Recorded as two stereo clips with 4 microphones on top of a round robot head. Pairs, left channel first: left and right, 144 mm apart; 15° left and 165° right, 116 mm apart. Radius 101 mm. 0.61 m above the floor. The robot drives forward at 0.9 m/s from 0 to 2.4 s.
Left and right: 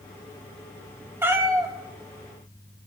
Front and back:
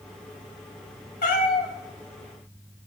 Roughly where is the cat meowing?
Ahead.